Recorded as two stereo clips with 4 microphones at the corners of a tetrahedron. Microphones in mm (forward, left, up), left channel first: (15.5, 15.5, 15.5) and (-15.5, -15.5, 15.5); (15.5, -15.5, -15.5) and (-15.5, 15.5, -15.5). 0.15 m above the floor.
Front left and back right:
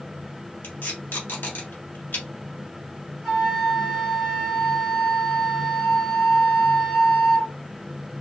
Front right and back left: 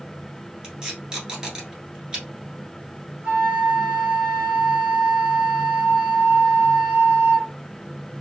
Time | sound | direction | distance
0.6 | tape being pulled | 70° left | 1.2 m
3.2 | a flute | 130° left | 2 m